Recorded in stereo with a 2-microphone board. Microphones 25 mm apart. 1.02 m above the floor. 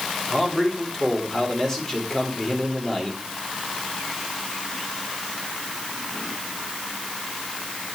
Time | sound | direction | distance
0.3 | a man speaking | 20° left (ahead or behind) | 3 m